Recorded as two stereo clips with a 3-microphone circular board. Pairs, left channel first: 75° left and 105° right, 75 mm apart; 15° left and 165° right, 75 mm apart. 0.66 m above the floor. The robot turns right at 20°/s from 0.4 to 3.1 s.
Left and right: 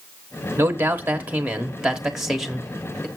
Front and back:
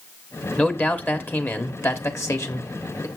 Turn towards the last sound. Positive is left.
turn(degrees=-5)